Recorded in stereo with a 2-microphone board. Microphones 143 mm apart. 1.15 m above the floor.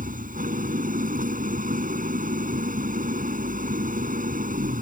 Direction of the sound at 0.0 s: 75° right (ahead or behind).